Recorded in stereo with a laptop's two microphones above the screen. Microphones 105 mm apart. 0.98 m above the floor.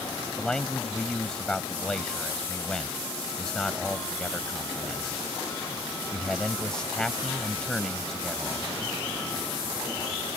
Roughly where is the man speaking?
Centre.